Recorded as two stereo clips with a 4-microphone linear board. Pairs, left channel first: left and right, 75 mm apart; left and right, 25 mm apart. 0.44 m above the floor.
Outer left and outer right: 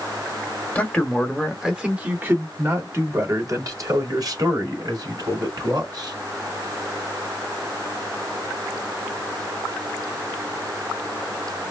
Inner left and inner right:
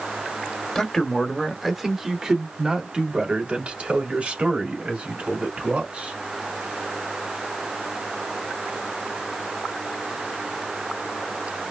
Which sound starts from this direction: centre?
A man speaking, at 0.8 s.